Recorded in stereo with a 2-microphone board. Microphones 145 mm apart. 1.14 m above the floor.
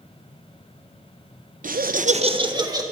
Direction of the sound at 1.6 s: 65° right (ahead or behind).